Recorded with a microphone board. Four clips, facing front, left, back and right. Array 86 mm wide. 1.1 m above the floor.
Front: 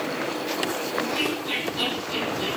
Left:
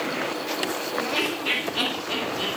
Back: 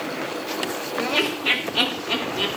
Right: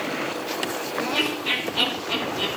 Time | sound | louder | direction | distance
1.0 | laughter | right 2 dB, back 5 dB | 170° left | 3.5 m